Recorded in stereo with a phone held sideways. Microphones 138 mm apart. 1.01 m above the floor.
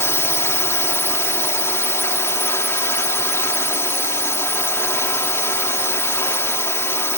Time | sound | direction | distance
0.0 | a drone | 20° left (ahead or behind) | ?